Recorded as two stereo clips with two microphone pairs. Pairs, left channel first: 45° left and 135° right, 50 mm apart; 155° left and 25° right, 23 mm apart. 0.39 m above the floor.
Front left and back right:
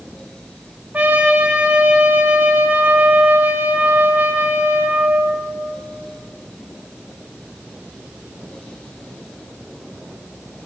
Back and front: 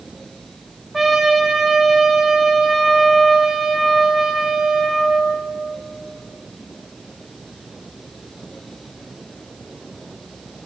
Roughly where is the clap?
No clap in this recording.